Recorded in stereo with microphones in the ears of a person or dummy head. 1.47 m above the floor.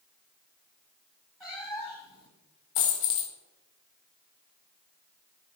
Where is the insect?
No insect in this recording.